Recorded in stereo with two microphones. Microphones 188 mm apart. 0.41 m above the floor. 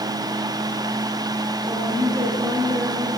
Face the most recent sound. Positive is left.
turn(degrees=-20)  # may be behind; listen again after turning